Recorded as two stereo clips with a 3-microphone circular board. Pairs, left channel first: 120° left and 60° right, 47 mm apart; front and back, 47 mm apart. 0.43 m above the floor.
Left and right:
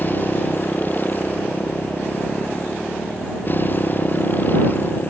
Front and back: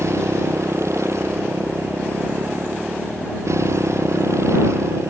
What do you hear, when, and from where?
0.0 s a motorcycle: 170° left